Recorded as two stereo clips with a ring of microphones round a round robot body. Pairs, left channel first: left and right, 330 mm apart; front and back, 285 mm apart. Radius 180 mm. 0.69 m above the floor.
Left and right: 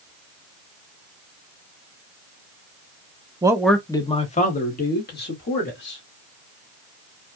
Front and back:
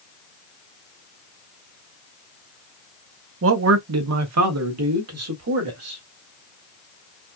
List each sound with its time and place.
3.4 s a man speaking: 165° right, 0.8 m; by 6.0 s 145° left, 2.5 m